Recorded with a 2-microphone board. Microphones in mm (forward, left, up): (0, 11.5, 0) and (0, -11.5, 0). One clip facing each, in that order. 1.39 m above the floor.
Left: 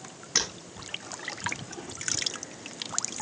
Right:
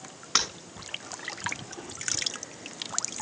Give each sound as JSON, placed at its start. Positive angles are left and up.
{"t": 0.3, "sound": "breaking glass", "side_deg": -80, "distance_m": 9.5}